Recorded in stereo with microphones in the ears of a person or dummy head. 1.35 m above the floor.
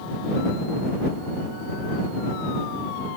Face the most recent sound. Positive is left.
No sound to turn to.